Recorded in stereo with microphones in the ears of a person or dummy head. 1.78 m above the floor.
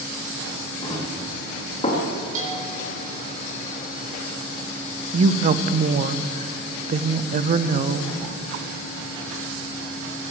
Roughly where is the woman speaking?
Right.